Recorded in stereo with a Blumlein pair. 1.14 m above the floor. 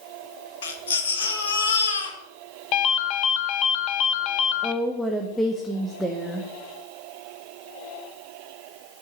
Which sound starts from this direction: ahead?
A woman speaking, at 4.6 s.